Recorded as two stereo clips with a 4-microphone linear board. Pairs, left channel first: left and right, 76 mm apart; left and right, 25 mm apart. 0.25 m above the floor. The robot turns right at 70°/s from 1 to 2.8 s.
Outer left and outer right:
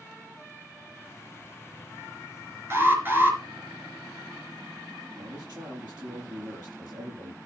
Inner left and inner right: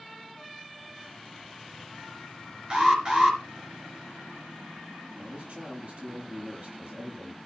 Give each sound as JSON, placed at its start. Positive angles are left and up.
{"t": 2.7, "sound": "an alarm", "side_deg": -35, "distance_m": 3.5}
{"t": 5.2, "sound": "a man speaking", "side_deg": -70, "distance_m": 7.0}